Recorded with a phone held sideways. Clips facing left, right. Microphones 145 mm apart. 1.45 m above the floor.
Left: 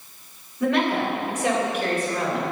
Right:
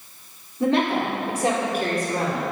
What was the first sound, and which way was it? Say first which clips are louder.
A woman speaking: right 1 dB; 30° right (ahead or behind).